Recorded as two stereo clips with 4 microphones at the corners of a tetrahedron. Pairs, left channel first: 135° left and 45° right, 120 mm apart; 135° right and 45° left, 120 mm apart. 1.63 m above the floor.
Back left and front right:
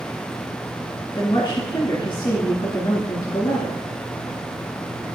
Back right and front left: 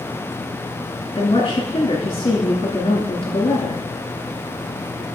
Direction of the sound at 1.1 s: Straight behind.